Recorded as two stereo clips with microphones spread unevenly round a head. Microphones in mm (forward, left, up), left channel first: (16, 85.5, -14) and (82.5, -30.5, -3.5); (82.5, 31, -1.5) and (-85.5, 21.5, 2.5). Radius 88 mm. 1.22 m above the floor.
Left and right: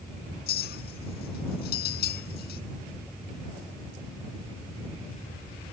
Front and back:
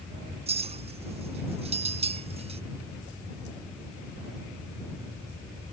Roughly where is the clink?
Behind left.